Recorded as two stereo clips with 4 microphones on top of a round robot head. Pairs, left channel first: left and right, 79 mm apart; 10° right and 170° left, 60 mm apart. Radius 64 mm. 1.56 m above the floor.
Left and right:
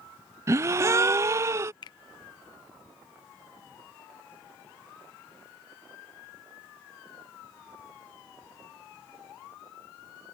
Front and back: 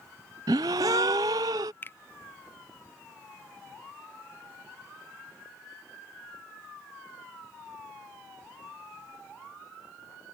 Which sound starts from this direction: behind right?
A gasp, at 0.5 s.